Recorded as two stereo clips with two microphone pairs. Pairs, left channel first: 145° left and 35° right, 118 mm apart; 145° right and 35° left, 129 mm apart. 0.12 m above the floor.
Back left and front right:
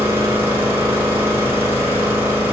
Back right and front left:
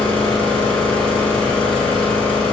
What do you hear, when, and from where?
0.0 s an engine running: 75° right, 1.1 m